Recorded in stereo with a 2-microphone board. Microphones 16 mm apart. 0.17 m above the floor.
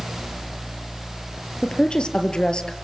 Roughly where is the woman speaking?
Left.